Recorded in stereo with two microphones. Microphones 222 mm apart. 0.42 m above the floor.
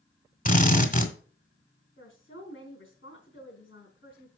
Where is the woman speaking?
65° left (ahead or behind), 4.5 m.